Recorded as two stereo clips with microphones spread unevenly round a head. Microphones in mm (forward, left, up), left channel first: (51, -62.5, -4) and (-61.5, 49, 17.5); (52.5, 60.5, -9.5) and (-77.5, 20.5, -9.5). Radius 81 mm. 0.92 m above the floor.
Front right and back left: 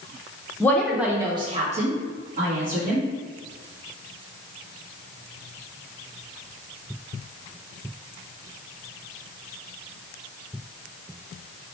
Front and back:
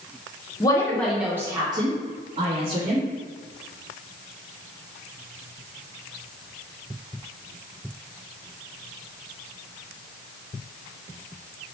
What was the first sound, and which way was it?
A woman speaking, 5° right.